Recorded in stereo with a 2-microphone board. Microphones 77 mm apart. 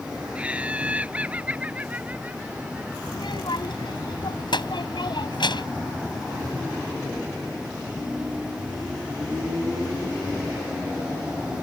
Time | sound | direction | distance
0.3 | laughter | 15° right (ahead or behind) | ?
3.1 | a child speaking | 85° left | ?